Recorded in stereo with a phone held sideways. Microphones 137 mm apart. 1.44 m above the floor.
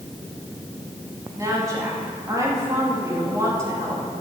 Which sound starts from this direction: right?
A woman speaking, at 1.4 s.